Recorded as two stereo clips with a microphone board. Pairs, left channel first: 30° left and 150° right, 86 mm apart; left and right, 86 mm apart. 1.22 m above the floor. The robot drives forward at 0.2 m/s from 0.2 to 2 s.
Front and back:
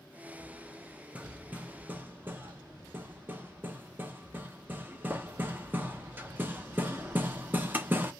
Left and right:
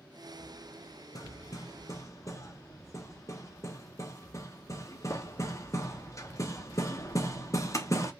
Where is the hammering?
135° left, 0.8 m; by 8.1 s 140° left, 0.9 m.